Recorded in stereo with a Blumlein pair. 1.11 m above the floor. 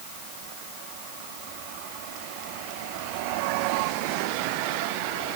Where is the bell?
No bell in this recording.